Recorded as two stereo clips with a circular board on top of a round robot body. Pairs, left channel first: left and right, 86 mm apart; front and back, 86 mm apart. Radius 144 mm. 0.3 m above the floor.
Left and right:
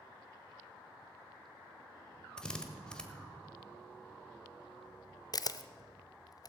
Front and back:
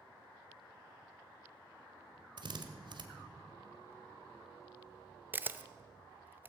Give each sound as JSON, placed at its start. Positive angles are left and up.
{"t": 2.4, "sound": "a drill", "azimuth_deg": 170, "distance_m": 1.5}
{"t": 5.3, "sound": "a camera shutter", "azimuth_deg": 120, "distance_m": 0.7}